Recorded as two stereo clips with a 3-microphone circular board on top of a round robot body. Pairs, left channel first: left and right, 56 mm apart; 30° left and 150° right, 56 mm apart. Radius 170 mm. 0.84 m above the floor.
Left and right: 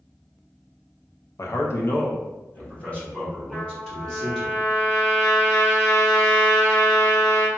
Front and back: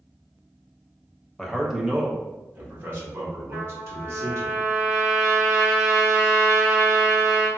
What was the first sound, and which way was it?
A man speaking, 110° left.